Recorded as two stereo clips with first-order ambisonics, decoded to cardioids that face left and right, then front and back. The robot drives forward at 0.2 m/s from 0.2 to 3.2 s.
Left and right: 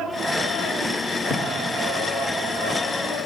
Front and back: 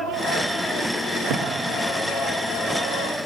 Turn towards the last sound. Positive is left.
turn(degrees=165)